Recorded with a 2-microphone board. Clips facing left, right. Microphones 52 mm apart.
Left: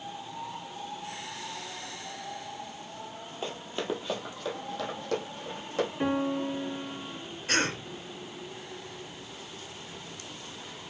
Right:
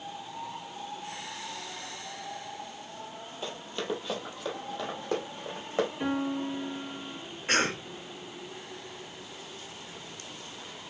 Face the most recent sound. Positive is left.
turn(degrees=-35)  # may be behind; listen again after turning